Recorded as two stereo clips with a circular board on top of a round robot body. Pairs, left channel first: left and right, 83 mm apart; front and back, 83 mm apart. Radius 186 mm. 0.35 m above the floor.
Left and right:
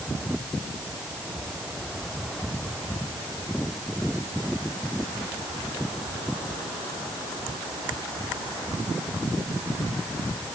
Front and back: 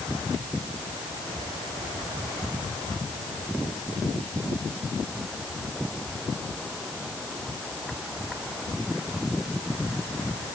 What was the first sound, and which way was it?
Only background noise.